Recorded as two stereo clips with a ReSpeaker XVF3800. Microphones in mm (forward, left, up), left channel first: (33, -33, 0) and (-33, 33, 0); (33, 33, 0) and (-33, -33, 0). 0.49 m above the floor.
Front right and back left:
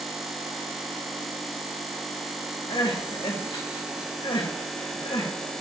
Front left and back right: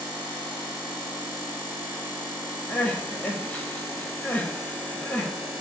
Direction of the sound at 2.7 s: 25° right.